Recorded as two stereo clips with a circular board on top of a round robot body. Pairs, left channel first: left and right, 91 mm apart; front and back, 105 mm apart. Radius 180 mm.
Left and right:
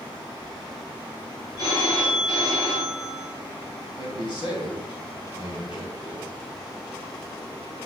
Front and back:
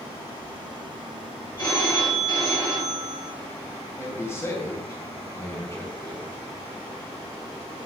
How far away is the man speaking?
About 2.5 m.